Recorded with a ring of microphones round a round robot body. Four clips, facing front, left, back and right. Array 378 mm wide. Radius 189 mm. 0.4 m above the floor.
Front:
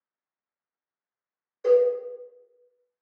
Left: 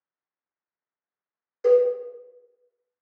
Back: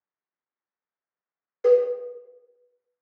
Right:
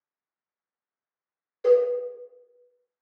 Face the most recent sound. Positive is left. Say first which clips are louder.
# left 2 dB, back 1 dB
turn(degrees=165)